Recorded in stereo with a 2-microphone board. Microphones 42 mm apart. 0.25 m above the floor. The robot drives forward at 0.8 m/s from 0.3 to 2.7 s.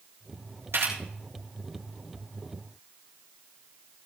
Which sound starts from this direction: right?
A camera shutter, at 0.7 s.